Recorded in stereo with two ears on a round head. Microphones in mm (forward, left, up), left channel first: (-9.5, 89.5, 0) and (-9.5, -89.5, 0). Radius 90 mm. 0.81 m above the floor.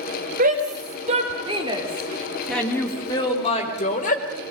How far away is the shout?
About 4 m.